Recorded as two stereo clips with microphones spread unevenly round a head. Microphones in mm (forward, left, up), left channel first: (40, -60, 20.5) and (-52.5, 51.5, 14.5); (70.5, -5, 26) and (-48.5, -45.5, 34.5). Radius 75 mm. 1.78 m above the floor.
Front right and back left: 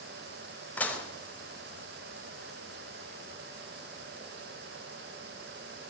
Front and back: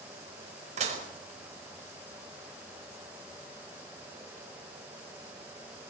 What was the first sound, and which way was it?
Dishes clattering, 130° right.